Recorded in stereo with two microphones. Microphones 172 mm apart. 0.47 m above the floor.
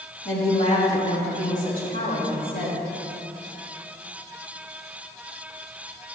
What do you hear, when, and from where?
0.2 s a woman speaking: 40° left (ahead or behind), 2.5 m; by 2.8 s 60° left (ahead or behind), 4 m